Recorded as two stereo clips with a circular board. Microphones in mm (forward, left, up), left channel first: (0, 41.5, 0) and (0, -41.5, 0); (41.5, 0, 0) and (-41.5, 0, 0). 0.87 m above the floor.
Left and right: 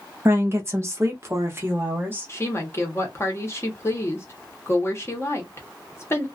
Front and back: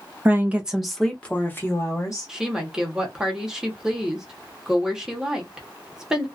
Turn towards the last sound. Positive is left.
turn(degrees=105)